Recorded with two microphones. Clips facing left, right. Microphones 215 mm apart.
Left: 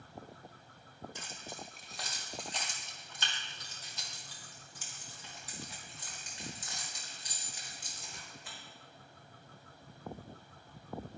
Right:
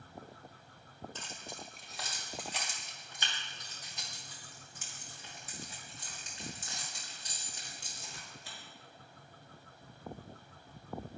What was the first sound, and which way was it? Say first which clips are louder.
Keys jangling: even; 15° left (ahead or behind).